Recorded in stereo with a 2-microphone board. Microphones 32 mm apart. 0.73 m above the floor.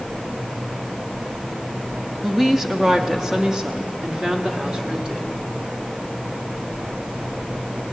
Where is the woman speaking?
10° right (ahead or behind), 1.0 m; by 5.3 s 25° right (ahead or behind), 3 m.